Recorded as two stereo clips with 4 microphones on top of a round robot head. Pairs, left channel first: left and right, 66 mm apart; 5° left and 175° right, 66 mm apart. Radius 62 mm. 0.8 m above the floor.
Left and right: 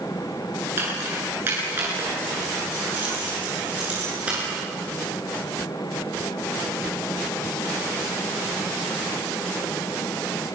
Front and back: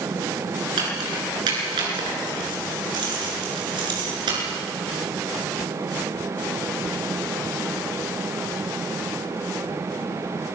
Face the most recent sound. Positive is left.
turn(degrees=-165)